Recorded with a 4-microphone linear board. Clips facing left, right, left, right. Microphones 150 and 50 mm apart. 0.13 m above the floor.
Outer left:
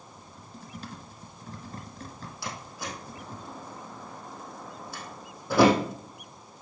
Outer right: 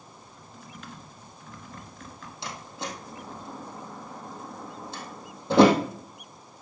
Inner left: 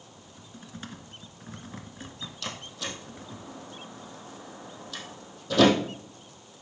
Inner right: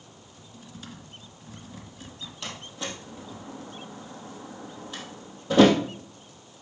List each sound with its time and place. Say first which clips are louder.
0.2 s typing on a keyboard: outer left 1 dB, inner left 2 dB; 40° left (ahead or behind), 1.9 m
2.4 s a door slam: outer right 2 dB, inner right 1 dB; 20° right (ahead or behind), 3 m